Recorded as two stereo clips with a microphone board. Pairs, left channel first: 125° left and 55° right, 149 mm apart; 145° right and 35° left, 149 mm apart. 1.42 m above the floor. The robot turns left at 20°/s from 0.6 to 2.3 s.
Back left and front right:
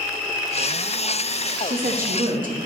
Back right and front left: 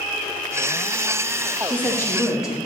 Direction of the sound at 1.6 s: 65° right.